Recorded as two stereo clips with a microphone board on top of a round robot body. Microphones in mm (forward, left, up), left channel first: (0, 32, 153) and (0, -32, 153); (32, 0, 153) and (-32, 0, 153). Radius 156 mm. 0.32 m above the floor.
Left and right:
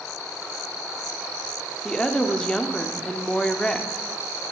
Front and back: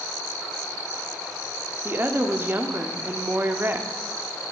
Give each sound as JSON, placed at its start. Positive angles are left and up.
{"t": 1.9, "sound": "a woman speaking", "azimuth_deg": 160, "distance_m": 1.4}